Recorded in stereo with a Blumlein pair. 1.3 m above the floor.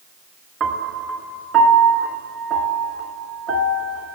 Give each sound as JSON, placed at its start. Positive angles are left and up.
{"t": 0.6, "sound": "a piano", "azimuth_deg": -25, "distance_m": 2.0}